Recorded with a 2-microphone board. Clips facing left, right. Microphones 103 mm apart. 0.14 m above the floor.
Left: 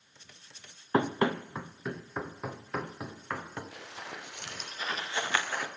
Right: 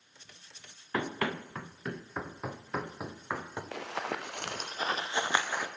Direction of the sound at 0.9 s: 30° left (ahead or behind).